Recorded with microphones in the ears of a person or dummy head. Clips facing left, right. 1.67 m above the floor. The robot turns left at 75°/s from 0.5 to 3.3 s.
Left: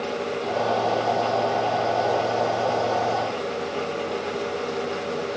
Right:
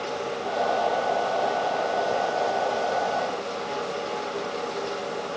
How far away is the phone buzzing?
I don't hear a phone buzzing.